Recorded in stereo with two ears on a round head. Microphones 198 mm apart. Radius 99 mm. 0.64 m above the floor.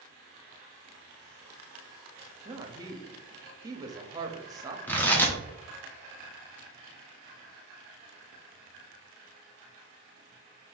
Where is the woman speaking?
20° right (ahead or behind), 0.6 m.